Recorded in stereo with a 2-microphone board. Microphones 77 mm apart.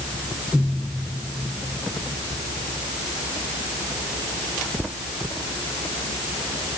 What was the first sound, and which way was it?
Only background noise.